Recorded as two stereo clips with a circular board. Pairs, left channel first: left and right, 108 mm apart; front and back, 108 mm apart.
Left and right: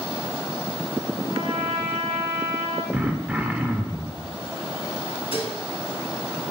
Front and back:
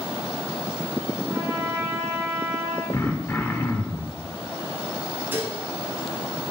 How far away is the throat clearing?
About 0.8 m.